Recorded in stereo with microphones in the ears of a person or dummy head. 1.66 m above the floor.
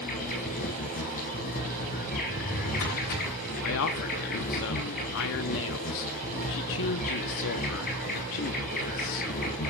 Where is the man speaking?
55° left (ahead or behind), 0.8 m.